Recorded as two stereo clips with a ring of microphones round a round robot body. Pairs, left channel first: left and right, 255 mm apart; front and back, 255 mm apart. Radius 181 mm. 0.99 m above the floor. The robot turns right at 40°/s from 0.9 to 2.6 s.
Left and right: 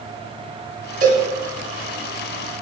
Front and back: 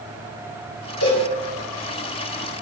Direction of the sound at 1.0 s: 35° right.